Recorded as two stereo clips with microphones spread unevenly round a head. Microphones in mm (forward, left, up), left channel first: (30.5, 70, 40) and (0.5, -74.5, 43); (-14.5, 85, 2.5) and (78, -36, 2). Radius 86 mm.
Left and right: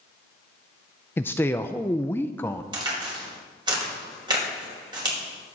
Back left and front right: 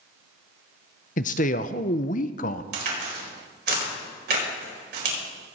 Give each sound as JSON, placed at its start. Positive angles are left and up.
{"t": 1.2, "sound": "a man speaking", "azimuth_deg": 155, "distance_m": 0.5}
{"t": 2.7, "sound": "a crack", "azimuth_deg": -40, "distance_m": 4.5}